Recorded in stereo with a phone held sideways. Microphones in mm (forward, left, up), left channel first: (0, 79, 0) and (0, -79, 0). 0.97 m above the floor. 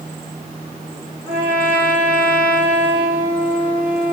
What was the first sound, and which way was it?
A trumpet, 15° right (ahead or behind).